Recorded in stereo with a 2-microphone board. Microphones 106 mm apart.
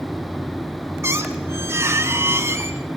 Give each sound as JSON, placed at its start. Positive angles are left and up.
{"t": 1.0, "sound": "a squeak", "side_deg": -25, "distance_m": 1.1}